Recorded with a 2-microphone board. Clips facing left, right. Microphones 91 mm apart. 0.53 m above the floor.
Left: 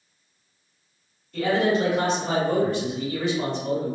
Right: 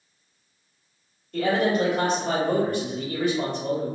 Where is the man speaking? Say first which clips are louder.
Even; 55° right (ahead or behind), 1.7 m.